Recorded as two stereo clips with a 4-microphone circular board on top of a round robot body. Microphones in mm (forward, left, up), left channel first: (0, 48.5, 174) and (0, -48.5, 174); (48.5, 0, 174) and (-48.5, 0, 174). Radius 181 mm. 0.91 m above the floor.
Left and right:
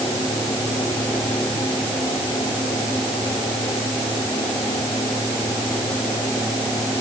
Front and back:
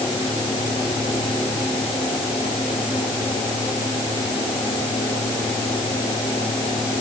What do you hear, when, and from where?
Only background noise.